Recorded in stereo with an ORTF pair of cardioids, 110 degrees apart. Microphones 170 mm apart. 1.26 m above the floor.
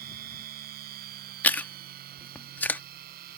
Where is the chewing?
10° left.